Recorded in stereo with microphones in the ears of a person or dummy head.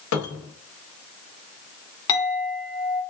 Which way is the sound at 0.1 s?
85° left.